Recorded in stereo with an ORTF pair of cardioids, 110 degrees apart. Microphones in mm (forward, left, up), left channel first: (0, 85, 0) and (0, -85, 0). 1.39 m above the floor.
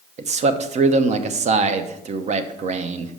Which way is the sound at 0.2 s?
45° right.